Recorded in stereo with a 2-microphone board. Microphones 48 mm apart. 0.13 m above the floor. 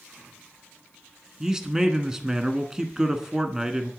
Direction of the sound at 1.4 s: 15° right (ahead or behind).